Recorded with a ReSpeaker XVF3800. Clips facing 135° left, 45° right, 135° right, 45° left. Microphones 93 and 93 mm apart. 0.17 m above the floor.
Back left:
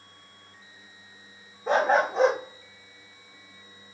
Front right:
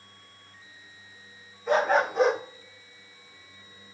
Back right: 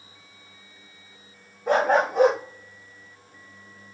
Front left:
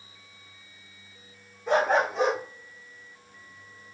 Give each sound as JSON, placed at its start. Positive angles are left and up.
{"t": 1.7, "sound": "a dog barking", "azimuth_deg": -170, "distance_m": 4.5}